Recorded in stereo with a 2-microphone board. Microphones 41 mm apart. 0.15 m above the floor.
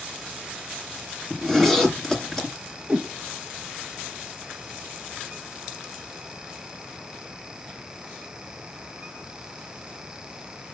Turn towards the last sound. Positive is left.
turn(degrees=-40)  # may be behind; listen again after turning